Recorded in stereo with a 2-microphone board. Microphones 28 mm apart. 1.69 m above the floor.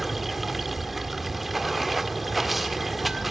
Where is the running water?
Centre (ahead or behind), 1.7 m.